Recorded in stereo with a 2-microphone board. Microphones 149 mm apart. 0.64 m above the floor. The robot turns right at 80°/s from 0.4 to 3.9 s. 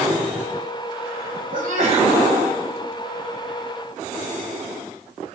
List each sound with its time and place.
1.5 s a sneeze: 80° right, 4.5 m; by 2.2 s 30° right, 4.5 m